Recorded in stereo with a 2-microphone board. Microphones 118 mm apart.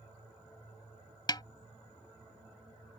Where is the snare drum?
35° left (ahead or behind).